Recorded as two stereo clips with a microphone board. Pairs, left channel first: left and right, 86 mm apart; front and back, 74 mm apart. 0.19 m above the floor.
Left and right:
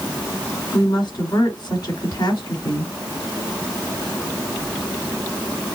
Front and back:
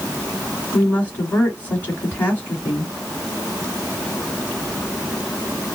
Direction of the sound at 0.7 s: 65° left.